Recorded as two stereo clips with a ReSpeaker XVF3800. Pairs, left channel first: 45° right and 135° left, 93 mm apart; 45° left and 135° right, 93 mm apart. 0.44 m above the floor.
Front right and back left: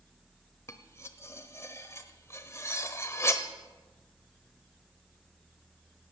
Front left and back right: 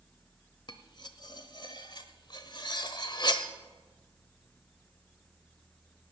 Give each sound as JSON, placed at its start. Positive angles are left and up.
{"t": 0.7, "sound": "cutlery clinking", "azimuth_deg": 15, "distance_m": 0.9}